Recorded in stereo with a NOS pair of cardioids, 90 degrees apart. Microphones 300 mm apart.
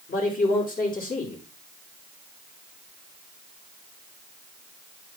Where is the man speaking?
35° left, 3 m.